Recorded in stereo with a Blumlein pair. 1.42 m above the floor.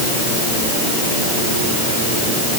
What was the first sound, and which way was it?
Only background noise.